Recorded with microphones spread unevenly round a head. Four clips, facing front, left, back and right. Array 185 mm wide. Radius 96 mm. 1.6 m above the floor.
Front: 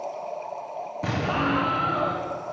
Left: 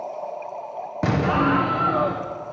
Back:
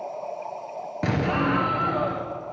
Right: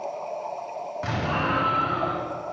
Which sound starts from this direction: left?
An explosion, at 1.0 s.